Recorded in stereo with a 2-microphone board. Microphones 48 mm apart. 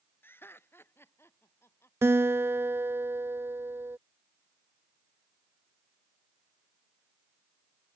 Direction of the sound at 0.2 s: 50° left (ahead or behind).